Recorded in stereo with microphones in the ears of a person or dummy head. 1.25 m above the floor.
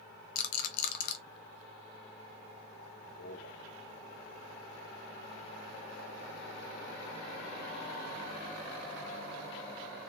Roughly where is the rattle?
Left.